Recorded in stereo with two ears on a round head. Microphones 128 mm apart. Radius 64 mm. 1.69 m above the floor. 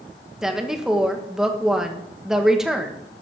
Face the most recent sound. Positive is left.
turn(degrees=-5)  # may be behind; listen again after turning